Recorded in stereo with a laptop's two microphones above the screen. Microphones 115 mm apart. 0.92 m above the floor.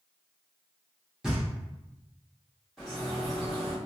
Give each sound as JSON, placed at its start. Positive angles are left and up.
{"t": 1.2, "sound": "knocking", "side_deg": -5, "distance_m": 1.5}
{"t": 2.8, "sound": "a bird", "side_deg": 5, "distance_m": 1.7}